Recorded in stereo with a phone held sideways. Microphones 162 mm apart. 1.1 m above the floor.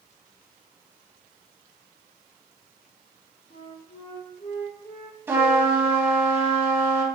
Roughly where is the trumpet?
Centre.